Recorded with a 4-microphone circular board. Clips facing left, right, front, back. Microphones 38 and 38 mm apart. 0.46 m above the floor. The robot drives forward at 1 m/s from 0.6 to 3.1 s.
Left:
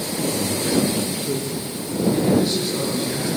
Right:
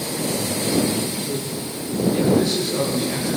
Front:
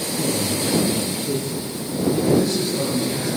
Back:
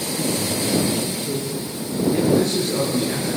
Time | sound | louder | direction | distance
0.2 | a man speaking | left 2 dB, front 1 dB | 70° left | 8 m
2.1 | a man speaking | right 1 dB, even | 175° left | 8 m